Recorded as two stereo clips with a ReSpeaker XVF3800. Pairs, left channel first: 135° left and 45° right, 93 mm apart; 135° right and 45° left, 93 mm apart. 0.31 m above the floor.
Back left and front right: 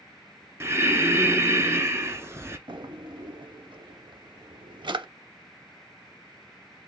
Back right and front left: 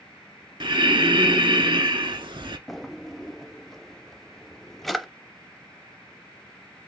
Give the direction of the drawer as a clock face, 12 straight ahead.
2 o'clock.